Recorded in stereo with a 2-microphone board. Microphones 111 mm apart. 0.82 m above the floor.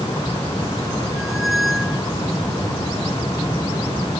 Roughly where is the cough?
No cough in this recording.